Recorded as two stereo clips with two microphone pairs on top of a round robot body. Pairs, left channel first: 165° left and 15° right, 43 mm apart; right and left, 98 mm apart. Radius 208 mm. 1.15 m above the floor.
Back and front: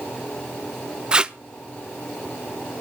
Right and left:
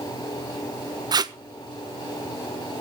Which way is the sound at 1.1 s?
45° left.